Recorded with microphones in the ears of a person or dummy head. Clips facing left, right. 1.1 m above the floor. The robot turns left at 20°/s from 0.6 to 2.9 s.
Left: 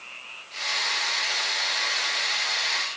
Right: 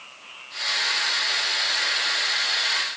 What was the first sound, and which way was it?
Only background noise.